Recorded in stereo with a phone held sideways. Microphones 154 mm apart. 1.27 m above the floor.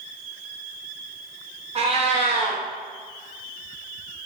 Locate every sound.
1.8 s a cat meowing: 40° right (ahead or behind), 0.8 m